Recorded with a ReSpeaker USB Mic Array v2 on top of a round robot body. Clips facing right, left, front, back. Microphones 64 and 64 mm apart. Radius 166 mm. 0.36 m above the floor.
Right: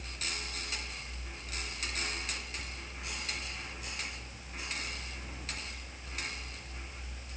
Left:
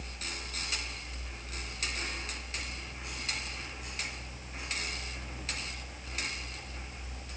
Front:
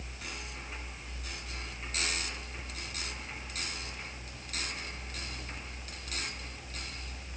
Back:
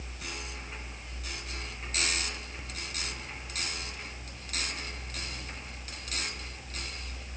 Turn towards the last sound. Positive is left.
No sound to turn to.